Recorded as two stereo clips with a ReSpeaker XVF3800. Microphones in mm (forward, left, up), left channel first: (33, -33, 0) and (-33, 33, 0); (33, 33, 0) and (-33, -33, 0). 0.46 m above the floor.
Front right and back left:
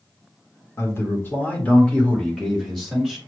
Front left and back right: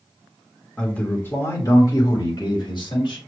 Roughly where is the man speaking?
Ahead right.